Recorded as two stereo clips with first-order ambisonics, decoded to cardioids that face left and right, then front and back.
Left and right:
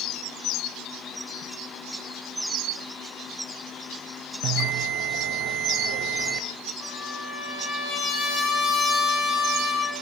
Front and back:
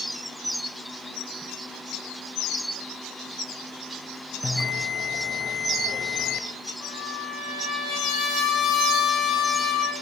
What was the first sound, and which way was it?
A bell, 70° right.